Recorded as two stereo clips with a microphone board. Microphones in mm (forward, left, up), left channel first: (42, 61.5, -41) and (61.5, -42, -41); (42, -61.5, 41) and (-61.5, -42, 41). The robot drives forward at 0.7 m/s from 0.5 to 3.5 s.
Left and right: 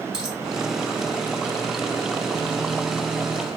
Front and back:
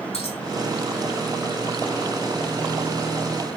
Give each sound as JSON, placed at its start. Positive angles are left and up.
{"t": 0.1, "sound": "a dropped coin", "azimuth_deg": 0, "distance_m": 2.5}